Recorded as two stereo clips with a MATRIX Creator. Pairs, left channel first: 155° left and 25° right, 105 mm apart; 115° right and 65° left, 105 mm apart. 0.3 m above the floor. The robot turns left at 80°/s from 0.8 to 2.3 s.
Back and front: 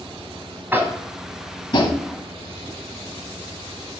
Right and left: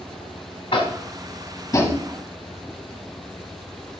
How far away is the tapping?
About 1.0 m.